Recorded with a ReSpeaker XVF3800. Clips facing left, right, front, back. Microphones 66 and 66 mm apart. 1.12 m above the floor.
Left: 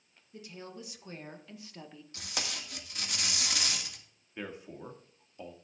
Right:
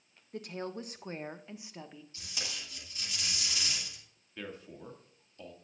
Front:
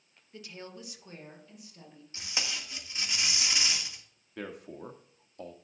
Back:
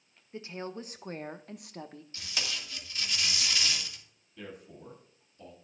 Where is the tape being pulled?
70° left, 1.6 m.